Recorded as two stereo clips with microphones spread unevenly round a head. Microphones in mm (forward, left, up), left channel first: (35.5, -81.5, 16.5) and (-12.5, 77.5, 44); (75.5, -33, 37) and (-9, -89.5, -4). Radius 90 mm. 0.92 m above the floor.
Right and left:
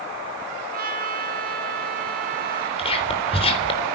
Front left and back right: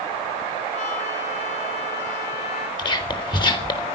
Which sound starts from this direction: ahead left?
A trumpet, at 0.7 s.